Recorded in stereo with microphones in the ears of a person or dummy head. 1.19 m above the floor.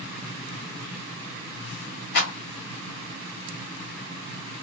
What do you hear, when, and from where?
2.1 s a clap: 55° left (ahead or behind), 1.5 m